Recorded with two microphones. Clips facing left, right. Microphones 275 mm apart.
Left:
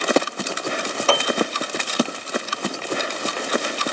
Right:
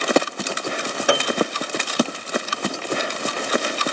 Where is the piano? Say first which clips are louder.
Right 1 dB; 15° right (ahead or behind), 1.4 m.